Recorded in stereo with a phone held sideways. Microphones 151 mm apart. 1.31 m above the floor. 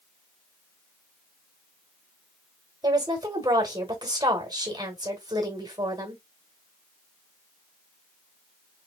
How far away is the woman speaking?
About 1.8 m.